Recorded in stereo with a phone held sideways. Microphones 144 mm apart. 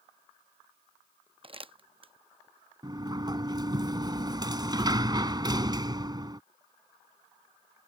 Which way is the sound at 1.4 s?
40° right (ahead or behind).